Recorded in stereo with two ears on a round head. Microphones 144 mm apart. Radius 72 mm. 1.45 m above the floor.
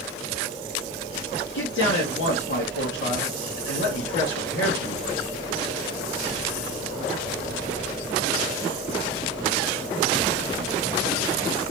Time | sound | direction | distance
1.5 | a man speaking | 80° left | 2.0 m